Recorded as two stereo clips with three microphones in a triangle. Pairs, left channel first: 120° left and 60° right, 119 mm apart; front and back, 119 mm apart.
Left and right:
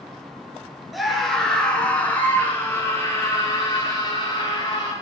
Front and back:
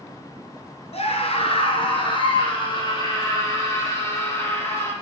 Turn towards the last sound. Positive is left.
turn(degrees=70)